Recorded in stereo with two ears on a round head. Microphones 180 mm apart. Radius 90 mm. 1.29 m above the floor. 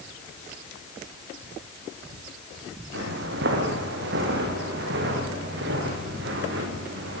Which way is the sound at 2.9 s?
60° right (ahead or behind).